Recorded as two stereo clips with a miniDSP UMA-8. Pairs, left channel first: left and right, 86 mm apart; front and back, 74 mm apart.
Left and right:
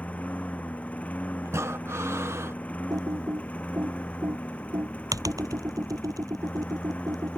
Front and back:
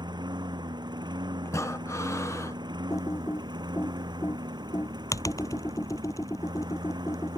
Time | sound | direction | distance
0.0 | a lawn mower | 165° left | ?
1.4 | breathing | 40° right | ?
2.9 | typing on a keyboard | 45° right | ?